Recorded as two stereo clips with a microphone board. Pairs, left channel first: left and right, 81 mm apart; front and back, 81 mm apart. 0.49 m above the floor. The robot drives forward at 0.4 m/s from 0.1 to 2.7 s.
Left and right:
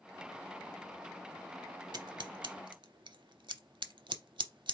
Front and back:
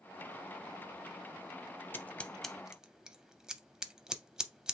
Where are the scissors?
65° right, 0.6 m; by 4.7 s 100° right, 0.5 m.